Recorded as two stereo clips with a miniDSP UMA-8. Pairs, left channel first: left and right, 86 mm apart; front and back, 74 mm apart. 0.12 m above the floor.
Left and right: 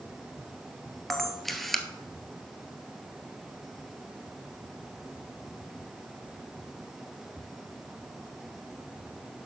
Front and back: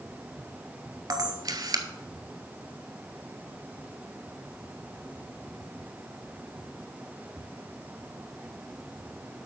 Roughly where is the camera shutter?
Behind.